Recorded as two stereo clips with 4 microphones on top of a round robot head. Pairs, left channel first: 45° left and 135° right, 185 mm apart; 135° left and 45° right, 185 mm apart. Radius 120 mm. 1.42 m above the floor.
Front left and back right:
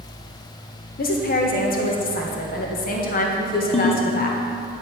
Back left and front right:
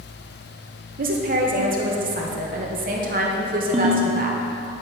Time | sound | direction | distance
1.0 | a woman speaking | straight ahead | 1.6 m
3.7 | a ringtone | straight ahead | 1.1 m